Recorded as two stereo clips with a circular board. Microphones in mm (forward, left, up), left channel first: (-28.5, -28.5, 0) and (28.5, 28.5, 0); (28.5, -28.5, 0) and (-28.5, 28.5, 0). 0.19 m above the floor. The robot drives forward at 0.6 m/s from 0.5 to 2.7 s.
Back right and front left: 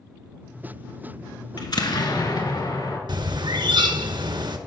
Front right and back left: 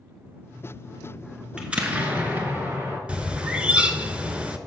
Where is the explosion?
145° right, 0.8 m; by 3.0 s 165° right, 1.4 m.